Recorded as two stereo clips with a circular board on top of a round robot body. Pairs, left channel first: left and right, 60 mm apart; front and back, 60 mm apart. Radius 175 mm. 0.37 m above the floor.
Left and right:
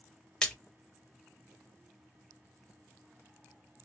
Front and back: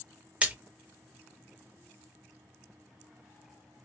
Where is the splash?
150° left, 1.0 m.